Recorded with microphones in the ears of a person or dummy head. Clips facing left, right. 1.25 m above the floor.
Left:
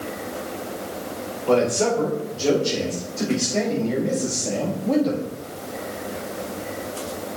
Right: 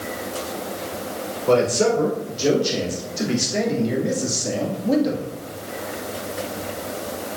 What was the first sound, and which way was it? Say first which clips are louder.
A man speaking: right 2 dB; 25° right (ahead or behind).